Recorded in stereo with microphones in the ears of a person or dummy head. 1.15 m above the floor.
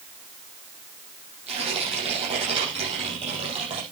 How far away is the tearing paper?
About 6.5 m.